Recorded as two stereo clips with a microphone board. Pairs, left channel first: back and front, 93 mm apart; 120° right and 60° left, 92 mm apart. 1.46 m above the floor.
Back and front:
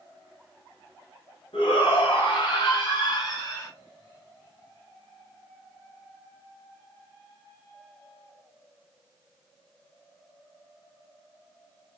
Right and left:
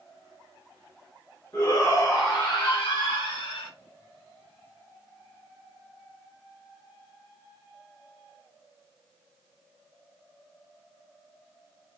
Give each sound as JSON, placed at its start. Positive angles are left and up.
{"t": 1.5, "sound": "a shout", "azimuth_deg": 175, "distance_m": 1.6}